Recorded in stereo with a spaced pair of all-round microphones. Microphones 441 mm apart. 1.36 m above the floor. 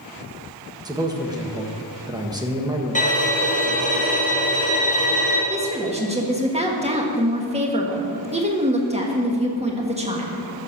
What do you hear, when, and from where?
0.8 s a man speaking: 10° right (ahead or behind), 1.4 m
3.0 s a violin: 15° left (ahead or behind), 2.5 m
5.5 s a woman speaking: 15° right (ahead or behind), 1.7 m